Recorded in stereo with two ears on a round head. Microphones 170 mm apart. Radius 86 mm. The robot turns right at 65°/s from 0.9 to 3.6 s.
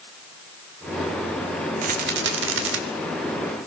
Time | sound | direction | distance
1.8 | a rattle | 135° right | 2.0 m